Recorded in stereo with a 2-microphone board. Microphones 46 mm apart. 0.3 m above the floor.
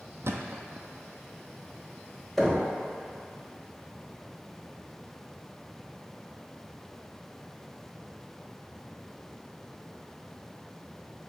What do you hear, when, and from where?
0.2 s a thud: 65° right (ahead or behind), 0.6 m
2.4 s knocking: 5° left (ahead or behind), 0.9 m